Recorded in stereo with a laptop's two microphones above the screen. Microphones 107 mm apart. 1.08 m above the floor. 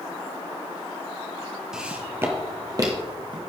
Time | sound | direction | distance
1.7 | footsteps | 5° right (ahead or behind) | 1.1 m